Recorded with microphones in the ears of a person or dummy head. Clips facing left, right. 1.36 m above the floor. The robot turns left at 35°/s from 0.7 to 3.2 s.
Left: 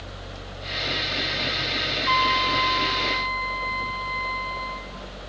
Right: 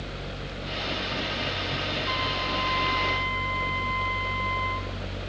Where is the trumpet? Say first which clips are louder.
Left 5 dB; 60° left, 8 m; by 4.9 s 20° left, 8 m.